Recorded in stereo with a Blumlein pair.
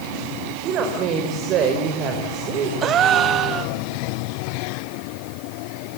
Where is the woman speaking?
35° right, 4 m.